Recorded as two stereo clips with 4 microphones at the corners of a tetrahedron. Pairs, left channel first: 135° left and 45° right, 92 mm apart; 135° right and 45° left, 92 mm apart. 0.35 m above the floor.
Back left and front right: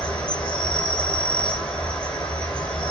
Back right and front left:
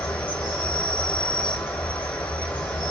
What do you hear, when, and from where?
0.0 s an insect: 175° right, 1.7 m